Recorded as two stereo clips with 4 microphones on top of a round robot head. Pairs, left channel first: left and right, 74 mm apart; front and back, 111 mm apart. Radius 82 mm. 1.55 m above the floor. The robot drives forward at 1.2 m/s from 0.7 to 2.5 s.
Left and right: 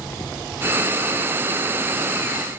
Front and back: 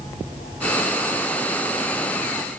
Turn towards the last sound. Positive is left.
No sound to turn to.